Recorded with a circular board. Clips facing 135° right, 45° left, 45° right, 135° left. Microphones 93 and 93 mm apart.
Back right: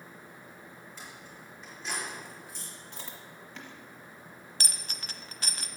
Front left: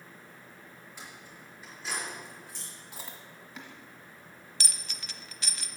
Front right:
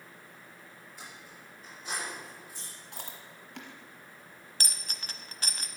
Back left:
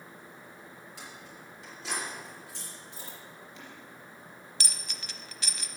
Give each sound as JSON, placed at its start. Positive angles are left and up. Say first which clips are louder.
{"t": 1.0, "sound": "keys jangling", "louder": "front left 1 dB, back left 1 dB", "azimuth_deg": 125, "distance_m": 4.0}
{"t": 2.9, "sound": "chewing", "louder": "front left 1 dB, even", "azimuth_deg": -40, "distance_m": 1.4}
{"t": 4.6, "sound": "a dropped coin", "louder": "back right 2 dB, front right 2 dB", "azimuth_deg": -90, "distance_m": 0.6}